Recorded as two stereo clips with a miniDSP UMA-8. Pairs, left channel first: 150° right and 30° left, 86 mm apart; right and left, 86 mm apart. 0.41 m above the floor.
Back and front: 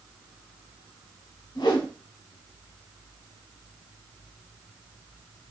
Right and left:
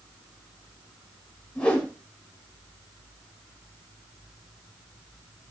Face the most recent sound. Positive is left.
turn(degrees=-165)